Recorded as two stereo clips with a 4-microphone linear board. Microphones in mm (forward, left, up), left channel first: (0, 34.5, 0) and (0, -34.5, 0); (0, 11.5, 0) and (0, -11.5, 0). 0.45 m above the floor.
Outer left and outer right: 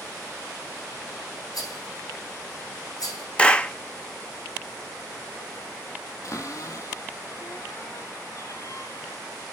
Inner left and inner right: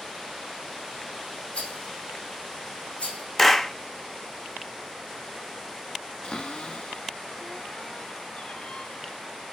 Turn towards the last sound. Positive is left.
turn(degrees=50)  # may be behind; listen again after turning